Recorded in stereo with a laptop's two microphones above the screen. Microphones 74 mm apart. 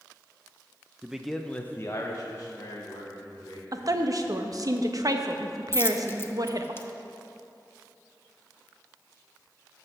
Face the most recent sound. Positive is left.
turn(degrees=30)  # may be behind; listen again after turning